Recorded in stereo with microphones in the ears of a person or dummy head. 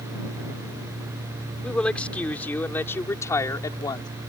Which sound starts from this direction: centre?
A woman speaking, at 1.6 s.